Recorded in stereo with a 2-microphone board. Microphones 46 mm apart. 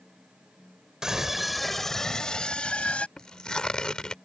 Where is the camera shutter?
I don't hear a camera shutter.